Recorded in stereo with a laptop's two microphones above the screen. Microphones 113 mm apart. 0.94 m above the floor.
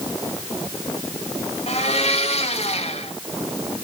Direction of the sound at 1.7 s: 70° left (ahead or behind).